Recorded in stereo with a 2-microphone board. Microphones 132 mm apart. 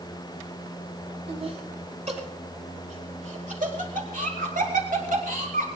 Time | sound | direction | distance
1.3 | laughter | 50° right (ahead or behind) | 5 m